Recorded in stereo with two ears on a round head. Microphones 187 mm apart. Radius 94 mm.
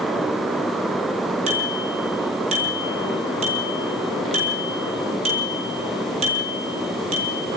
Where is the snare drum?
No snare drum in this recording.